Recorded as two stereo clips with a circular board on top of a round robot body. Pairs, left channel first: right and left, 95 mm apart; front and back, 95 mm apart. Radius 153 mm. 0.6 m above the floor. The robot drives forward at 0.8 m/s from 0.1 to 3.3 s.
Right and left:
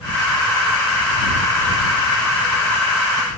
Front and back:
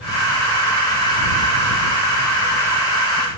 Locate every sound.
Only background noise.